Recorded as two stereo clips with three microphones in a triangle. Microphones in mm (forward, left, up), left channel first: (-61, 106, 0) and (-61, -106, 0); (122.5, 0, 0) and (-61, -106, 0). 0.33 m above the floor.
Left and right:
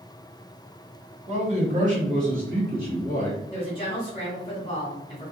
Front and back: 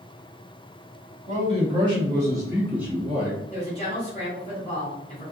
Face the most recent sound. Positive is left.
turn(degrees=50)